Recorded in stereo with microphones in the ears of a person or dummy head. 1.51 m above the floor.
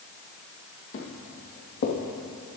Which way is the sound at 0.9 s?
50° left (ahead or behind).